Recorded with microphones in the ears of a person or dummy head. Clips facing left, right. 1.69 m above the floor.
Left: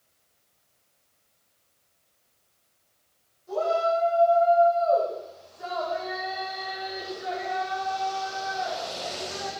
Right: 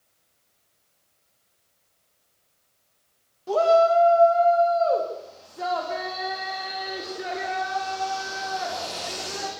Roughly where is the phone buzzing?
I don't hear a phone buzzing.